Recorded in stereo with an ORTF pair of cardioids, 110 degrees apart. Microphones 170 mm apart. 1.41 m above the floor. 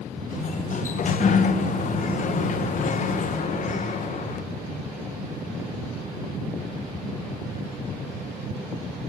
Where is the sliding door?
45° left, 1.3 m.